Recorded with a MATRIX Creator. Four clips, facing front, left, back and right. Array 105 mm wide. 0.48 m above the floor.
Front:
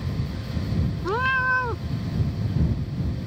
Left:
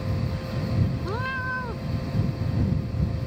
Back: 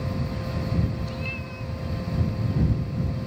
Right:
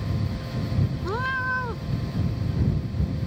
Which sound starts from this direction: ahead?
A cat meowing, at 1.0 s.